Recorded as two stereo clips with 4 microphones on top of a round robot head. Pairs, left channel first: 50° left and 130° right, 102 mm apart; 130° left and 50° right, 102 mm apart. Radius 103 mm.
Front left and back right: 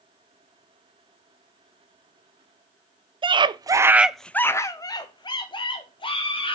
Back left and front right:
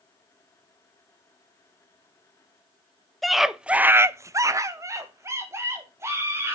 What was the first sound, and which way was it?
A scream, 140° right.